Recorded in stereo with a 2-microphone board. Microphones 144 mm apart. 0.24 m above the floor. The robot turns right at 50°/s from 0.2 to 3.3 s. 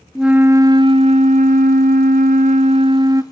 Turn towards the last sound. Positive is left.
turn(degrees=-20)